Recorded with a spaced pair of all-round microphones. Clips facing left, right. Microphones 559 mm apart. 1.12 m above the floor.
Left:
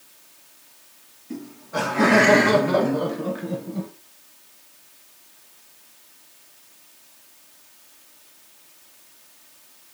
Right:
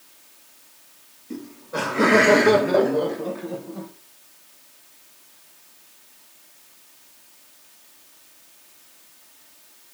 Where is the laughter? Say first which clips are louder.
Even; 10° left (ahead or behind), 1.7 m; by 3.9 s 50° left (ahead or behind), 0.8 m.